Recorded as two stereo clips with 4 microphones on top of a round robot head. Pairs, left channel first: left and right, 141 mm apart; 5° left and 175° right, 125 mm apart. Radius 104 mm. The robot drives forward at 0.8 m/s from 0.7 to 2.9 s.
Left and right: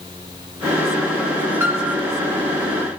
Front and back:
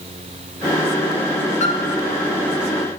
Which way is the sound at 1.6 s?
15° right.